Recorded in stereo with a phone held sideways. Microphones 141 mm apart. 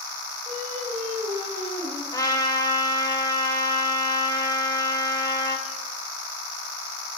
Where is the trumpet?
25° left (ahead or behind), 1.7 m.